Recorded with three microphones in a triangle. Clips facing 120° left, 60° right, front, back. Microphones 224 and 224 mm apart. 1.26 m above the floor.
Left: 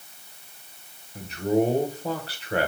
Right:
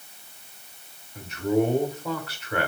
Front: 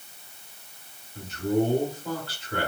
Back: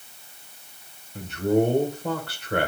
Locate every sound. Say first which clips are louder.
1.1 s a man speaking: even, back 3 dB; 170° left, 1.2 m